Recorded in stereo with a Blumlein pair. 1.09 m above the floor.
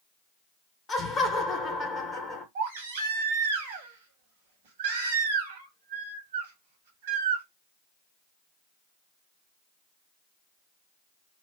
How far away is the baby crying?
About 1.1 m.